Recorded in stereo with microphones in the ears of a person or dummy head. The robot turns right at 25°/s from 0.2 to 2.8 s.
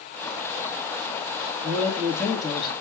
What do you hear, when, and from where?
1.6 s a man speaking: 10° right (ahead or behind), 2 m; by 2.7 s 15° left (ahead or behind), 2 m